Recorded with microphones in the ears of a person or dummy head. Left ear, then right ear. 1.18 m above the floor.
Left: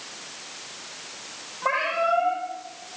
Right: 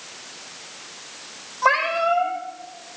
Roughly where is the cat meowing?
Right.